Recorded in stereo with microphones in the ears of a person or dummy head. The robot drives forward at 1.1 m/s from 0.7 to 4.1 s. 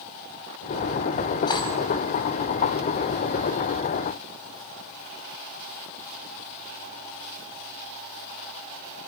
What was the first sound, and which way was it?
Cutlery clinking, 25° left (ahead or behind).